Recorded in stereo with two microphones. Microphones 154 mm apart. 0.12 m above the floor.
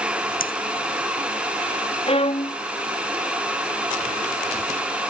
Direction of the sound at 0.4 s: 65° left (ahead or behind).